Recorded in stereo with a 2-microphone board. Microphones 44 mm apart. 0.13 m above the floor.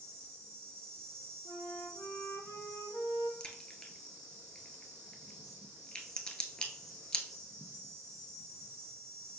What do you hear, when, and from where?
0.0 s an insect: 10° left (ahead or behind), 1.0 m
1.4 s a flute: 75° left (ahead or behind), 1.0 m
3.4 s a crack: 20° left (ahead or behind), 0.9 m